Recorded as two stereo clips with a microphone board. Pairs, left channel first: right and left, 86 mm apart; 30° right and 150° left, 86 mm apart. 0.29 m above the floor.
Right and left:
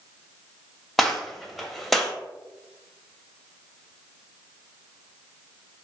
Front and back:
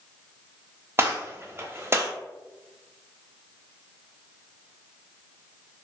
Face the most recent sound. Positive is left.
turn(degrees=-175)